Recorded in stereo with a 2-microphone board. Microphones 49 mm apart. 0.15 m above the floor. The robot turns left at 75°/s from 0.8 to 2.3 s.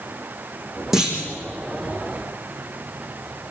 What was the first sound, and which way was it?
A clunk, 5° right (ahead or behind).